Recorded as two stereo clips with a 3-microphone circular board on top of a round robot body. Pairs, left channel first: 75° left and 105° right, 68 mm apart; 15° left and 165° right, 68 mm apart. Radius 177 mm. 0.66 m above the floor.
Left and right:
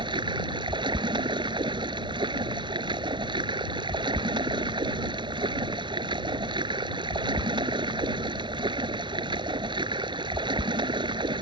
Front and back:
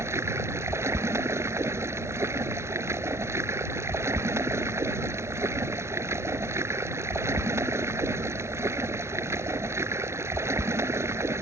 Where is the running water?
110° right.